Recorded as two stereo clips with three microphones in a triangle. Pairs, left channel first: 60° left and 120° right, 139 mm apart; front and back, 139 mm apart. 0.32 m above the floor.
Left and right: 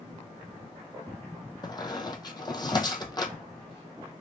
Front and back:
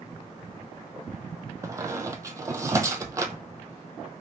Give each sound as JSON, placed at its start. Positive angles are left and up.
{"t": 1.6, "sound": "a squeak", "azimuth_deg": 115, "distance_m": 0.6}